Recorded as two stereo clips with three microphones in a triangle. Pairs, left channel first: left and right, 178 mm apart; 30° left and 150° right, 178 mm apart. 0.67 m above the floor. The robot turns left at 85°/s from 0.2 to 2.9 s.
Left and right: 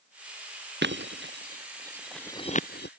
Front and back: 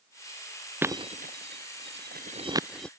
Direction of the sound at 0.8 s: 70° right.